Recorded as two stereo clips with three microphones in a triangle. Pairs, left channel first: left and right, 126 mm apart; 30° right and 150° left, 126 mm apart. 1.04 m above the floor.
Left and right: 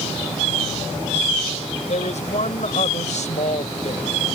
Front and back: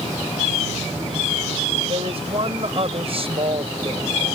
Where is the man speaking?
110° left.